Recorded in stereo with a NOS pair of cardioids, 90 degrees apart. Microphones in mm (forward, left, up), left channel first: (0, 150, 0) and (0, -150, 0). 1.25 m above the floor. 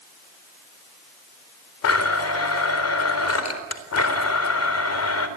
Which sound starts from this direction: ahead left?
A blender, at 1.8 s.